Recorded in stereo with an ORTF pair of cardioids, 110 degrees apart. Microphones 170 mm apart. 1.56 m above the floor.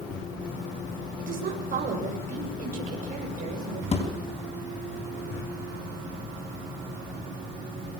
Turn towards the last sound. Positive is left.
turn(degrees=40)